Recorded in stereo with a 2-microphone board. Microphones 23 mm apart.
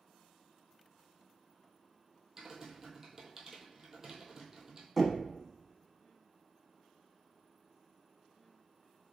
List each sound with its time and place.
2.4 s typing on a keyboard: 25° right (ahead or behind), 1.2 m
5.0 s knocking: centre (ahead or behind), 0.9 m